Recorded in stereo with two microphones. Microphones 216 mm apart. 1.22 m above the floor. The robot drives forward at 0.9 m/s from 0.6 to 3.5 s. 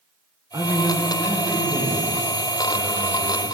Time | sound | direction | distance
0.5 | a man speaking | 15° right (ahead or behind) | 1.0 m